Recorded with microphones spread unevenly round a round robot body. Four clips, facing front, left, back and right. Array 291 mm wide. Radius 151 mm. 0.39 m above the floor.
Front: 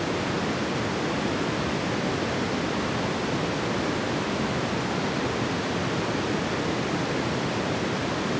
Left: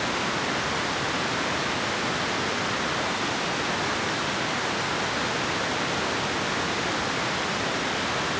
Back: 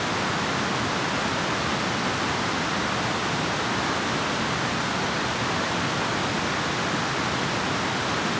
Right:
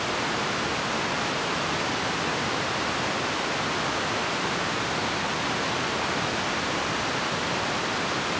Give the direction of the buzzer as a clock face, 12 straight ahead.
I don't hear a buzzer.